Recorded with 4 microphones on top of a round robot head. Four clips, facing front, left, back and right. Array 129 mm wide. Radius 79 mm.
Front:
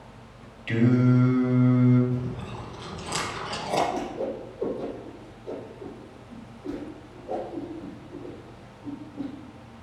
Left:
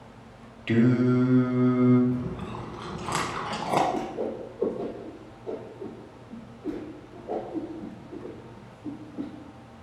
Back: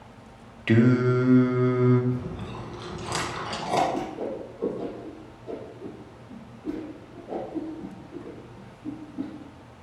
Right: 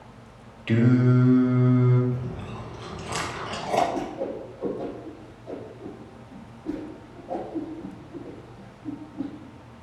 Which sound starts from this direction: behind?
Singing, at 0.7 s.